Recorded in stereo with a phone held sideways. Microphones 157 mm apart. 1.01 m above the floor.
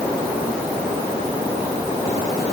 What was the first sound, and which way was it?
Only background noise.